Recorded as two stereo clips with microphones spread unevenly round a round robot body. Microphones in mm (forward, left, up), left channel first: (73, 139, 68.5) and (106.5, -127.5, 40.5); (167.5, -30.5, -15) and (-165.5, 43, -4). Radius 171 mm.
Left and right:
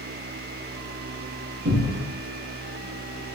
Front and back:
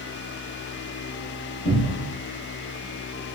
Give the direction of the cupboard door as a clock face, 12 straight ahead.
3 o'clock.